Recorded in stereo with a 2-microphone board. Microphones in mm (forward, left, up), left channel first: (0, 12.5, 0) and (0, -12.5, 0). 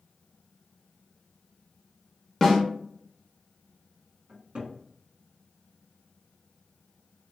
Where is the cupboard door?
50° right (ahead or behind), 1.6 m.